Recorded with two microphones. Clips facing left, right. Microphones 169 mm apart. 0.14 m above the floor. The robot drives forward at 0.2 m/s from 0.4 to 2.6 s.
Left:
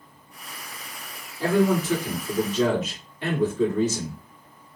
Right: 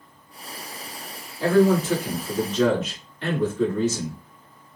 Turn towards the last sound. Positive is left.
turn(degrees=15)  # may be behind; listen again after turning